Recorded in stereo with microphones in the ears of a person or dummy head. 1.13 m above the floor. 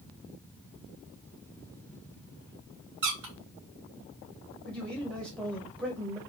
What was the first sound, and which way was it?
A squeak, 75° right (ahead or behind).